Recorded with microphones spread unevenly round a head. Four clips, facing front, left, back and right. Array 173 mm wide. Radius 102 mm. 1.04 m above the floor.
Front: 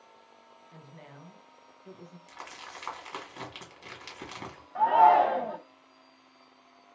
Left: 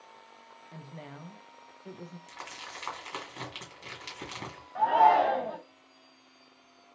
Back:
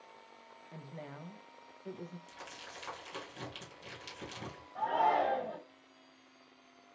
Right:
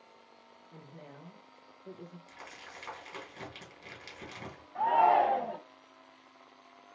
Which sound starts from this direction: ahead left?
Crumpling, at 2.3 s.